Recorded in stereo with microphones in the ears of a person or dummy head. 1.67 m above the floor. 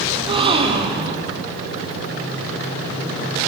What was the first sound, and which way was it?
A gasp, 30° right (ahead or behind).